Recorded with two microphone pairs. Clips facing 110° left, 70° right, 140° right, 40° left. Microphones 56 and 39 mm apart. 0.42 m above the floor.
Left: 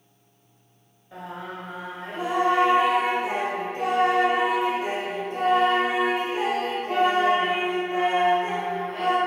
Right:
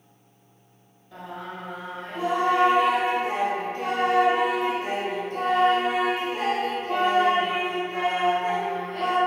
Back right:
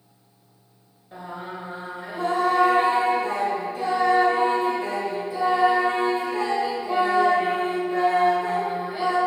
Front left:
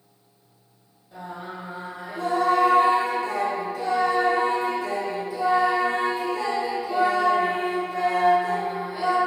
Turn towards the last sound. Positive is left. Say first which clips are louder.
# left 1 dB, back right 1 dB
turn(degrees=175)